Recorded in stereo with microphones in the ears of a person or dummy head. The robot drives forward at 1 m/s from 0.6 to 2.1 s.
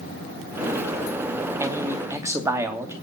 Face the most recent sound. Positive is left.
turn(degrees=-15)  # may be behind; listen again after turning